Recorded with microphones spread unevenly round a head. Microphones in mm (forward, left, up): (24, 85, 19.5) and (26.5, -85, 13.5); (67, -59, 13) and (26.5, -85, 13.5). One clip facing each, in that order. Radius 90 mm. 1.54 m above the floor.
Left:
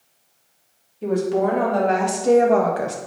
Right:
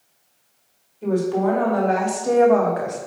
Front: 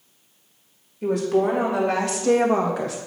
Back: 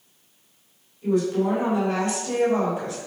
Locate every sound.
1.0 s a woman speaking: 20° left, 3 m; by 3.0 s 40° left, 1.7 m